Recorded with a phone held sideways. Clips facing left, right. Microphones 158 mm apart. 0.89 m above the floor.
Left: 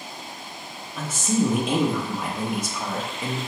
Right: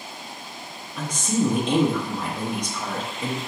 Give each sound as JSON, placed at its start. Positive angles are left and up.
{"t": 1.0, "sound": "a woman speaking", "side_deg": 5, "distance_m": 0.7}